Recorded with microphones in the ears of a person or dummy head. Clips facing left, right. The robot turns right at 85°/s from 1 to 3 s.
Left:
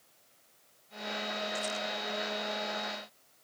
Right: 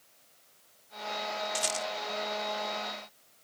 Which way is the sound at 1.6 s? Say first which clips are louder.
Right 1 dB; 50° right (ahead or behind).